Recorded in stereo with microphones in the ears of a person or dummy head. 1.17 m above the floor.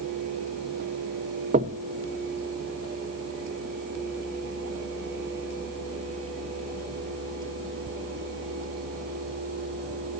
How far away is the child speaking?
I don't hear a child speaking.